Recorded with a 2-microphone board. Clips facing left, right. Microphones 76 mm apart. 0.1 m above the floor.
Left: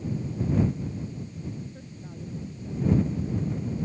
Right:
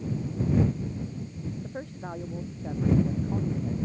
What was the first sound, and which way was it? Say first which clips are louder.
A woman speaking: right 6 dB; 65° right (ahead or behind).